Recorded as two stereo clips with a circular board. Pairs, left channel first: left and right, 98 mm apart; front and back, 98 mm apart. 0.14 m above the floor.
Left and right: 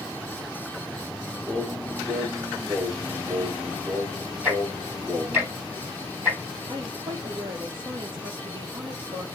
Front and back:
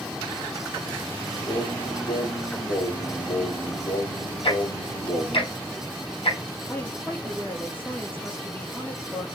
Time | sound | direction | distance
1.5 | singing | 15° right | 5 m
4.4 | ticking | 20° right | 4.5 m
6.7 | a woman speaking | 70° right | 3 m